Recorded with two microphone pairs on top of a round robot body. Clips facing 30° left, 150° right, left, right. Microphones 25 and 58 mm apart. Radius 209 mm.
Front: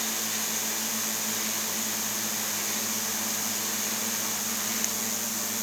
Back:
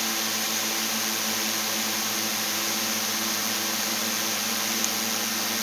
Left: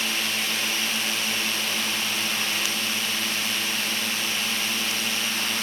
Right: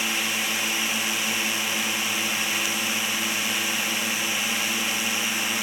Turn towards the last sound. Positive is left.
turn(degrees=-145)